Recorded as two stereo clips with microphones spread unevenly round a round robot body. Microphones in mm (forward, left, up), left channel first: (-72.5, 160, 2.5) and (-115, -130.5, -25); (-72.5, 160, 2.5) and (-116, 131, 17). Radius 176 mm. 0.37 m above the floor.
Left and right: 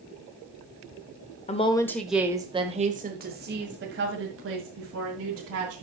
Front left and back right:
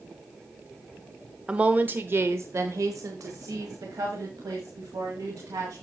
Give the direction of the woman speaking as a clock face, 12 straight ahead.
8 o'clock.